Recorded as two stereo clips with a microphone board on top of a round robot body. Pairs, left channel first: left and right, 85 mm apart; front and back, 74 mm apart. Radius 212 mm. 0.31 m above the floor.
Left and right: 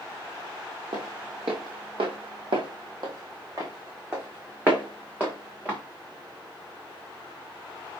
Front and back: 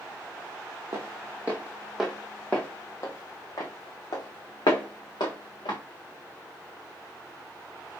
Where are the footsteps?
125° right, 1.1 m; by 5.8 s 15° right, 2 m.